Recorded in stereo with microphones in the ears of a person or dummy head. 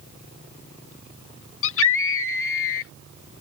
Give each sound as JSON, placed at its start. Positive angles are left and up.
{"t": 1.6, "sound": "a scream", "side_deg": 75}